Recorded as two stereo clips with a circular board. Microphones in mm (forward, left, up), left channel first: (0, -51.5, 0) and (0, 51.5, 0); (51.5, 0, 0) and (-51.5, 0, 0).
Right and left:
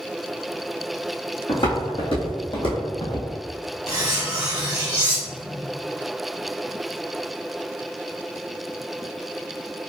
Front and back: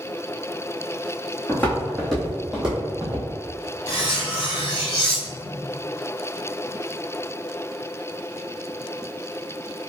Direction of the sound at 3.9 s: 30° left.